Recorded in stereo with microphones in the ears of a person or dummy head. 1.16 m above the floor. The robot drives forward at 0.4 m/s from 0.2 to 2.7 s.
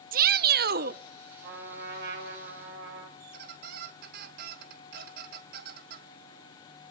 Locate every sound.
0.1 s a shout: 40° right (ahead or behind), 0.7 m
1.4 s a trumpet: 60° right (ahead or behind), 6 m; by 3.1 s 65° right (ahead or behind), 5.5 m
3.2 s a squeak: 45° right (ahead or behind), 0.6 m